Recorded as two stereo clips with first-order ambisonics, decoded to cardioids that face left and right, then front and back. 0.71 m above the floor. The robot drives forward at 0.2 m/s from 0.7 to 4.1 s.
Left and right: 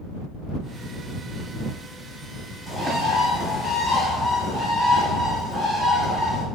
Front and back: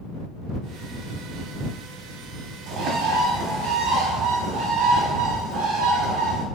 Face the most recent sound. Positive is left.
turn(degrees=175)